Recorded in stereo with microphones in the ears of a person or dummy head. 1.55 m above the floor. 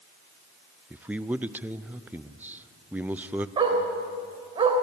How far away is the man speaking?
About 0.6 m.